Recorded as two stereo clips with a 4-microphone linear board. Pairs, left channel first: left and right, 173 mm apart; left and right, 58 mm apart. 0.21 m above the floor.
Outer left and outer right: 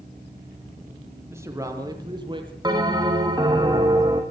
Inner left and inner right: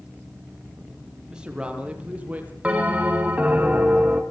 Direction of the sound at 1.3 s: 15° right (ahead or behind).